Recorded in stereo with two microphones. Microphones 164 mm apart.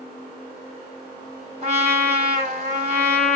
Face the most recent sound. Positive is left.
turn(degrees=-40)  # may be behind; listen again after turning